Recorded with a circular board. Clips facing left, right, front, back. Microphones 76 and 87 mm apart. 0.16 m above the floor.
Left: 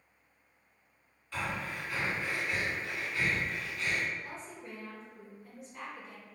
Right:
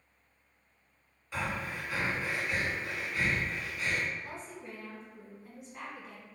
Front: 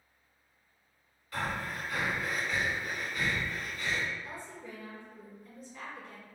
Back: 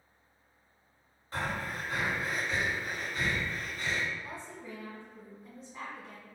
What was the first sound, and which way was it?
Breathing, 155° right.